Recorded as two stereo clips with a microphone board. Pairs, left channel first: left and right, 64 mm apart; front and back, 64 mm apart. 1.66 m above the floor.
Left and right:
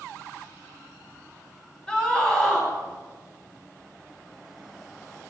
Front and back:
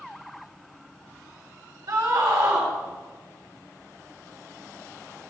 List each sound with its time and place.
1.9 s a scream: 160° left, 2.5 m